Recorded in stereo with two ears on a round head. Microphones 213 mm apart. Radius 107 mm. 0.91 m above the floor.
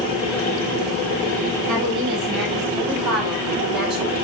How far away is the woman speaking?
About 6.5 m.